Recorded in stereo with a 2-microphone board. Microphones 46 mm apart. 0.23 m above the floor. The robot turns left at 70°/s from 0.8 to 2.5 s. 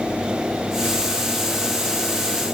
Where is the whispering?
I don't hear whispering.